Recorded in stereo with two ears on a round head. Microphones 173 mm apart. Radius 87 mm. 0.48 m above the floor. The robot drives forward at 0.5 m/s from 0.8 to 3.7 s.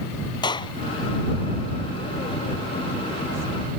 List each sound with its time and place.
0.4 s a clap: 25° left (ahead or behind)